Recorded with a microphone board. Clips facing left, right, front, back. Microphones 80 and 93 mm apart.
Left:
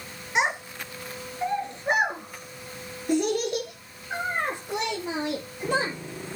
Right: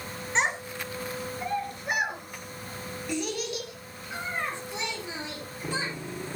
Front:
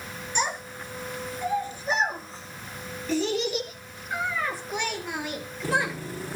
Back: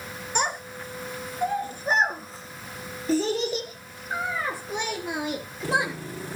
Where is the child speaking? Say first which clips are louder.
Left 2 dB, back 1 dB; 165° left, 2.5 m; by 5.9 s 115° left, 4 m.